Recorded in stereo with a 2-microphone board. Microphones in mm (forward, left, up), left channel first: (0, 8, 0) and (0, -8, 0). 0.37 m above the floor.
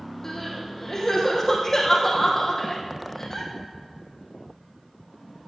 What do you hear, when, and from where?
0.2 s crying: 30° left (ahead or behind), 3.5 m